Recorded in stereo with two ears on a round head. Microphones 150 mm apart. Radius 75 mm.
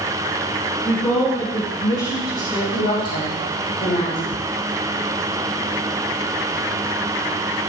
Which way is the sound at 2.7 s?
70° left (ahead or behind).